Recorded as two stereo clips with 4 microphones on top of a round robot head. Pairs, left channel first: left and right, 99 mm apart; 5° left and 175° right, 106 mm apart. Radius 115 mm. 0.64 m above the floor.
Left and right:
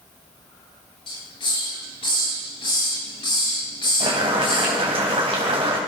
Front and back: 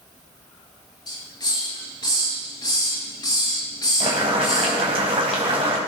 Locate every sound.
1.1 s a hiss: 55° left, 9 m
4.0 s boiling: 130° right, 3 m